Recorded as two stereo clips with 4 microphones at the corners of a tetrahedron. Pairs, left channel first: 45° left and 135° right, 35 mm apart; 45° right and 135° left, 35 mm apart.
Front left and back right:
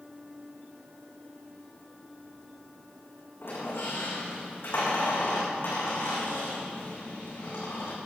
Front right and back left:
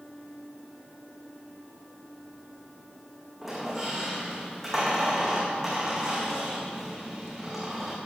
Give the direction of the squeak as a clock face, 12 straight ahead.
10 o'clock.